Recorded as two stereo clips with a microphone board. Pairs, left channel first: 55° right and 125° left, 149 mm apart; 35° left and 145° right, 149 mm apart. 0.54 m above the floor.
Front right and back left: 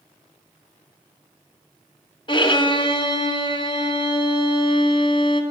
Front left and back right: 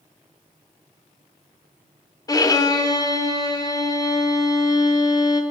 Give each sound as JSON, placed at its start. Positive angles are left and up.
{"t": 2.3, "sound": "a violin", "azimuth_deg": -20, "distance_m": 0.5}